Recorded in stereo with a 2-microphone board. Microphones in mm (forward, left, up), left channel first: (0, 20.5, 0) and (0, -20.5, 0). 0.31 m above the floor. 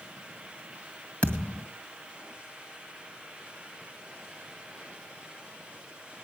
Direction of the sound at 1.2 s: 30° left (ahead or behind).